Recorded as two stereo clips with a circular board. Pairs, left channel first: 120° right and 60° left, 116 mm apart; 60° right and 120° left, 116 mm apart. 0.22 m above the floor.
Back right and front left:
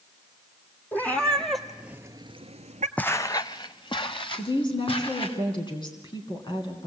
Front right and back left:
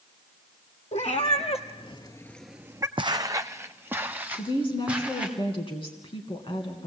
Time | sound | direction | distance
0.9 | a cat meowing | 45° right | 2 m
3.0 | footsteps | 160° left | 0.6 m
4.3 | a woman speaking | 80° right | 2.5 m